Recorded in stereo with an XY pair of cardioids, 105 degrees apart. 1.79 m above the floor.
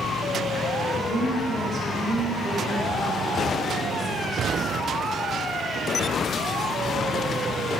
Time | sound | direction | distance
0.9 | a woman speaking | 35° right | 4.5 m